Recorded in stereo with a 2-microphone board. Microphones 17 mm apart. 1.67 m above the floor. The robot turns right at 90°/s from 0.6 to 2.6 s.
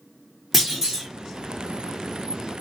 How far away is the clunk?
About 1.7 m.